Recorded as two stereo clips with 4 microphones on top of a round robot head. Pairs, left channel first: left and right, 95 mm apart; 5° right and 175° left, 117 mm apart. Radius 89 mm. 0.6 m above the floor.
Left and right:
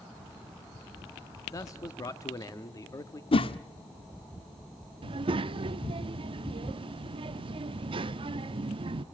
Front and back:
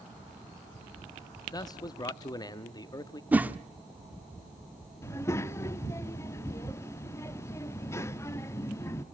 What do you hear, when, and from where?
1.5 s a man speaking: 45° left, 0.8 m
3.3 s a whoosh: 100° left, 1.0 m
5.0 s a child speaking: 70° right, 0.6 m